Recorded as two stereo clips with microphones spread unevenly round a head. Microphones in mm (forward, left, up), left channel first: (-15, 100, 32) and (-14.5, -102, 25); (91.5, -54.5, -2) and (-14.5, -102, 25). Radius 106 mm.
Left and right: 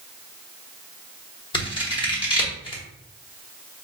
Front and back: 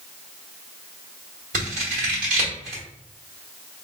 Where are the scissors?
155° left, 1.0 m.